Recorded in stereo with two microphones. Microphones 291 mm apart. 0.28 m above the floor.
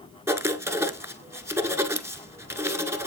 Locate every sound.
0.3 s writing: 10° right (ahead or behind), 0.5 m